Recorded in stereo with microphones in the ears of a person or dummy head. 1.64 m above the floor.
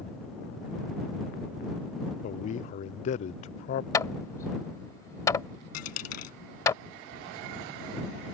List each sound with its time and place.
2.2 s a man speaking: 50° left (ahead or behind)
3.9 s hammering: 25° left (ahead or behind)
5.7 s a dropped coin: 65° left (ahead or behind)